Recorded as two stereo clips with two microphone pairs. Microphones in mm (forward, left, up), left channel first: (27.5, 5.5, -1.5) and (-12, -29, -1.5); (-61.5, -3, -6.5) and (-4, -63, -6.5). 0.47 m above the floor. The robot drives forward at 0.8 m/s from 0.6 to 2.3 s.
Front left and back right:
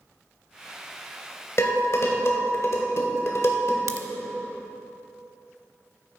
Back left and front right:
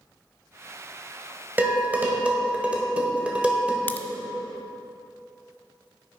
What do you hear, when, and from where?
1.6 s dishes clattering: 15° left, 1.7 m; by 3.8 s 25° left, 1.3 m
3.9 s a crack: 160° right, 0.6 m